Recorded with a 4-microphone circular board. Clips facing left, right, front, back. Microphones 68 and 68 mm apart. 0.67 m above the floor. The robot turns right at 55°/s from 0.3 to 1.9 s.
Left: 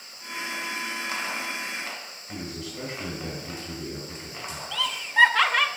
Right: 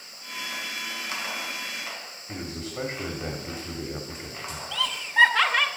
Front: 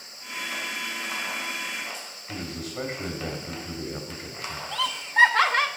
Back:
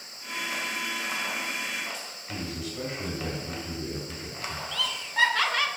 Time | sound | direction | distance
2.3 | a man speaking | 50° right | 1.5 m
4.7 | laughter | 5° right | 0.6 m